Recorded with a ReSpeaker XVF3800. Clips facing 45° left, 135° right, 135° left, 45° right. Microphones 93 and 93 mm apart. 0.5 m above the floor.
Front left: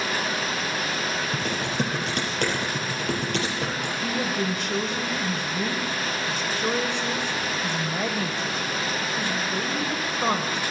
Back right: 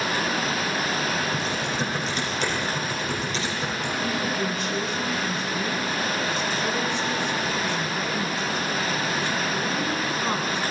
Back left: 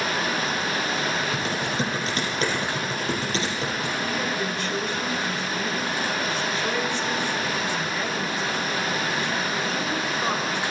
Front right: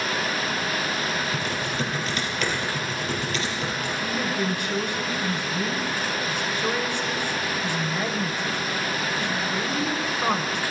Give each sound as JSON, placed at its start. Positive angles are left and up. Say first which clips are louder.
{"t": 1.3, "sound": "typing on a keyboard", "louder": "even, back left 1 dB", "azimuth_deg": 80, "distance_m": 4.0}
{"t": 4.0, "sound": "a woman speaking", "louder": "front left 1 dB, front right 3 dB", "azimuth_deg": 30, "distance_m": 1.8}